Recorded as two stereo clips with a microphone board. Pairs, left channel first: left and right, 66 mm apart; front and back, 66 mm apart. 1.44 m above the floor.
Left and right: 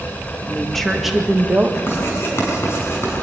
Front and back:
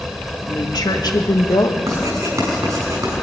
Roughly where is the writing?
Behind left.